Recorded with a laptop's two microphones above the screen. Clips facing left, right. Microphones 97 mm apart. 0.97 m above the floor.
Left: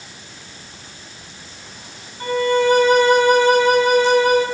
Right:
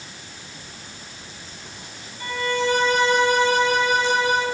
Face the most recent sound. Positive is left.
turn(degrees=50)  # may be behind; listen again after turning